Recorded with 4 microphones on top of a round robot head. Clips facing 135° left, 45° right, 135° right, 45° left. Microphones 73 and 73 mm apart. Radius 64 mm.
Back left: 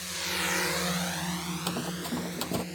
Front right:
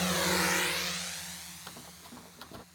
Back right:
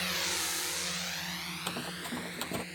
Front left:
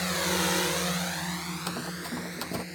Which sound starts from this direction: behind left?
Running footsteps, at 1.7 s.